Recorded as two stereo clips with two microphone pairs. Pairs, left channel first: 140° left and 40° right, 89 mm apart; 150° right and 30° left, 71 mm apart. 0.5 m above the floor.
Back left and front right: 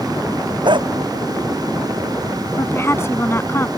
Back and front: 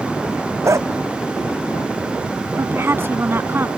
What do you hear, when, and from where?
0.6 s a dog barking: 15° right
2.6 s a woman speaking: 85° left